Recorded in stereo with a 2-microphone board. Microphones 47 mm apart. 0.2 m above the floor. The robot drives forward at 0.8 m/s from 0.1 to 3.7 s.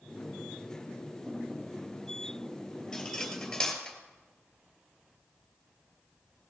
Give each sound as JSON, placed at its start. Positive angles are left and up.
{"t": 2.9, "sound": "cutlery clinking", "side_deg": 10, "distance_m": 3.0}